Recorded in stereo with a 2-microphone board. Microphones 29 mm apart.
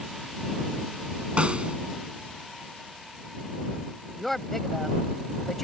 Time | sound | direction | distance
1.4 | a snare drum | 40° right (ahead or behind) | ?
4.2 | a woman speaking | 10° left (ahead or behind) | ?